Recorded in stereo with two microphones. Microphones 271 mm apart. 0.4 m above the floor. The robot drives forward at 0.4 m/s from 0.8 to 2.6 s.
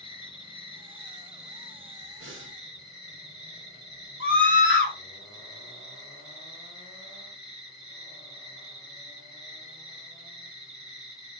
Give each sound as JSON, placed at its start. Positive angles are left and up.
{"t": 0.0, "sound": "an insect", "side_deg": 15, "distance_m": 1.4}
{"t": 2.2, "sound": "breathing", "side_deg": -50, "distance_m": 0.9}
{"t": 4.2, "sound": "a scream", "side_deg": 45, "distance_m": 1.7}